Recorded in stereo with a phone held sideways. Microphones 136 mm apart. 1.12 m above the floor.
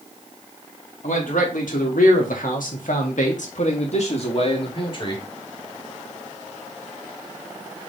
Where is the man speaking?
75° left (ahead or behind), 2.5 m; by 5.2 s 35° left (ahead or behind), 2 m.